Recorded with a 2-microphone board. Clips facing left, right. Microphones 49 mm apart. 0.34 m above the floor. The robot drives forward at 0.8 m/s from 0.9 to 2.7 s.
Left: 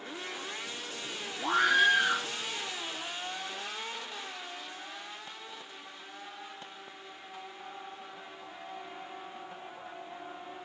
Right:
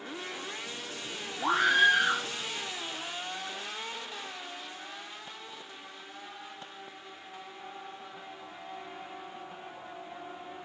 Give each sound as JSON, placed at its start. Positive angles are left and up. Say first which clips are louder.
{"t": 1.4, "sound": "a scream", "louder": "right 1 dB", "side_deg": -65, "distance_m": 3.0}